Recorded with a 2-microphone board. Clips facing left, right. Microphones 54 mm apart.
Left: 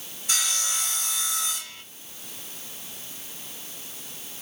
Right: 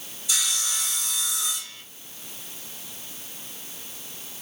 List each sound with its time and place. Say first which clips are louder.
0.3 s sawing: even; 50° left (ahead or behind), 1.9 m